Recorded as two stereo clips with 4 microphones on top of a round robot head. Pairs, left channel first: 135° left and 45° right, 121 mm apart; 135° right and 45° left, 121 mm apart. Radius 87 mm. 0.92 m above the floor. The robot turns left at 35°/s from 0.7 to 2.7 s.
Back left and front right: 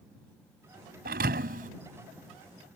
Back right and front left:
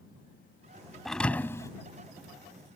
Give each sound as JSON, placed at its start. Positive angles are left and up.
{"t": 1.1, "sound": "a thud", "azimuth_deg": -45}